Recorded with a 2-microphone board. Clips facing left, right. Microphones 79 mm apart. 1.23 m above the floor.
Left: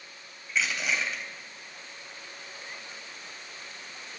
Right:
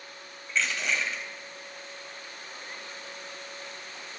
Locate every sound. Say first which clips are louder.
0.5 s crushing: even; 5° left (ahead or behind), 3.5 m